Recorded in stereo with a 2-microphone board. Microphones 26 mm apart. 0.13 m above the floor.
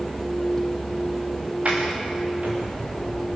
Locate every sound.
1.6 s a sliding door: 50° right (ahead or behind), 5.5 m